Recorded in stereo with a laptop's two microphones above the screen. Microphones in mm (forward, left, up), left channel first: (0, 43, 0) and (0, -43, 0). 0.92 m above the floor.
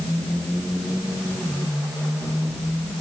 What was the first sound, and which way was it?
Only background noise.